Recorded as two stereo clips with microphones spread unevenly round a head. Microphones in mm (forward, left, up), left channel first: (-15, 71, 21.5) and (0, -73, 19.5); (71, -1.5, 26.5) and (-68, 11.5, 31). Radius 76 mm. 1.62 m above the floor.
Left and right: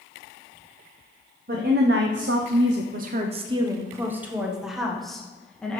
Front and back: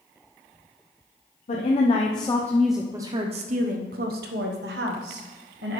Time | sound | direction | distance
1.5 | a woman speaking | 50° right | 1.0 m